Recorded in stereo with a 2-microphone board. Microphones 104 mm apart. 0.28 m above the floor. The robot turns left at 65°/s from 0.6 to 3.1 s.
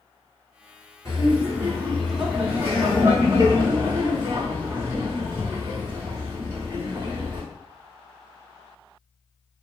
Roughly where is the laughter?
Left.